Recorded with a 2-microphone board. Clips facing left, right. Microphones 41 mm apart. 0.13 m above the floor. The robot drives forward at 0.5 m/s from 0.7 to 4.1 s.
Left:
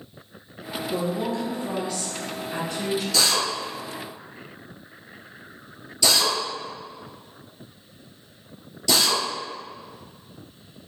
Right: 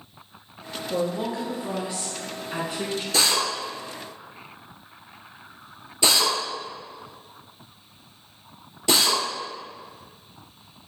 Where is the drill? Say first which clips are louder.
Right 2 dB; 35° right (ahead or behind), 1.5 m; by 9.2 s 30° right (ahead or behind), 1.8 m.